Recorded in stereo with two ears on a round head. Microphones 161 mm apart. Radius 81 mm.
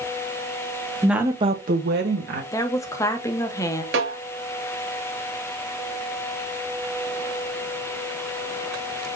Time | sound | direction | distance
1.0 | a woman speaking | centre (ahead or behind) | 1.2 m
2.5 | a woman speaking | 15° left (ahead or behind) | 0.9 m
3.9 | a snare drum | 70° right (ahead or behind) | 2.5 m